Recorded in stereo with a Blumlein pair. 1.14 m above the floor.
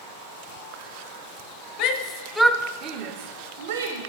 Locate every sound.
1.8 s a shout: 40° left, 0.6 m; by 4.0 s 65° right, 1.0 m